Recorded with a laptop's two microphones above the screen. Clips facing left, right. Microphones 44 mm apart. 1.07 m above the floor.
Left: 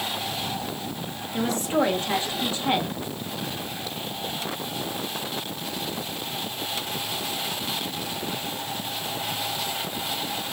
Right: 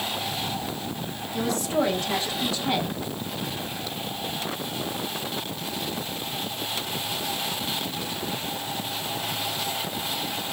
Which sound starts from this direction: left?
A woman speaking, at 1.3 s.